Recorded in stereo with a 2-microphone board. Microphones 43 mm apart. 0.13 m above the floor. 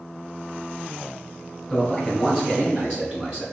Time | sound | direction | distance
1.7 | a man speaking | 5° left (ahead or behind) | 1.4 m